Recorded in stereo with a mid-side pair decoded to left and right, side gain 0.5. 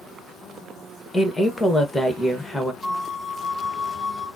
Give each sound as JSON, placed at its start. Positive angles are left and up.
{"t": 1.1, "sound": "a woman speaking", "azimuth_deg": 15, "distance_m": 1.3}
{"t": 2.8, "sound": "a flute", "azimuth_deg": -5, "distance_m": 2.5}